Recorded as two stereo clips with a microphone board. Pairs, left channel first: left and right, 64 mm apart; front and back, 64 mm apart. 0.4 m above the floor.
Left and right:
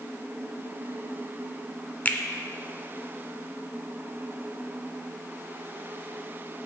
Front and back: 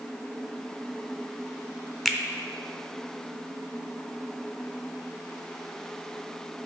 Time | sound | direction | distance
2.0 | a finger snap | 95° left | 0.6 m